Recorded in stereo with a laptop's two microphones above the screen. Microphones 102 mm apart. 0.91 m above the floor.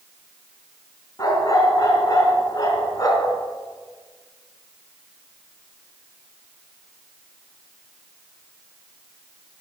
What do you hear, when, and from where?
1.2 s a dog barking: 35° left (ahead or behind), 4.5 m